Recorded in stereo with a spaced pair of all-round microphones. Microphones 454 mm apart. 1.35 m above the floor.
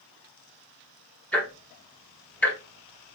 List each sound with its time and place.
1.3 s ticking: 5° left (ahead or behind), 1.0 m